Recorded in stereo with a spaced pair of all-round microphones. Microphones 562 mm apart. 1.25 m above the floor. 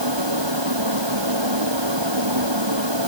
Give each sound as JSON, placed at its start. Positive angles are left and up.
{"t": 0.0, "sound": "a fan", "side_deg": -50}